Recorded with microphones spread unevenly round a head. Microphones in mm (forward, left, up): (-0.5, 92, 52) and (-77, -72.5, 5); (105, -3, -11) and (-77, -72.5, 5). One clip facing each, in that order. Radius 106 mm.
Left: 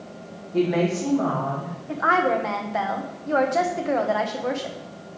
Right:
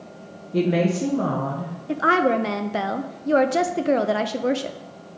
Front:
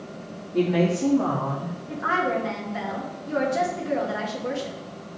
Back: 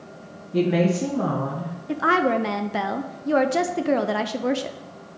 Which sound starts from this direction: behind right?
A woman speaking, at 1.9 s.